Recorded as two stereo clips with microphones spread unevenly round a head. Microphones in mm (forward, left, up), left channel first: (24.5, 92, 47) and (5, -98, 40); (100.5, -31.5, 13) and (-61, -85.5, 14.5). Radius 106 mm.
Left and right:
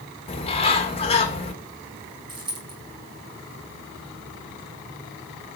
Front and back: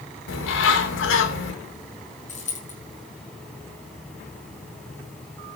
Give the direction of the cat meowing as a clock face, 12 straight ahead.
No cat meowing in this recording.